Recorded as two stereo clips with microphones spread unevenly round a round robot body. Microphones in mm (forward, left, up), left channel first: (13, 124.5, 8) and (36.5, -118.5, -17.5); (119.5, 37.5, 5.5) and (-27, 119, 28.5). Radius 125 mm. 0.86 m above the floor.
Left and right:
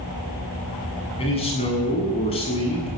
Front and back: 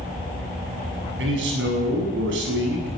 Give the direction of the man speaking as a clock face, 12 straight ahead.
7 o'clock.